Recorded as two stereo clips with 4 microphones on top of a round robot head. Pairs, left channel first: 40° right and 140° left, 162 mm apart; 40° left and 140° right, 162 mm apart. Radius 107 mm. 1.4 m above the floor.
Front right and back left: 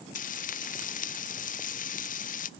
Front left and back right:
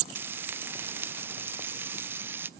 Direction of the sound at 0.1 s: 65° right.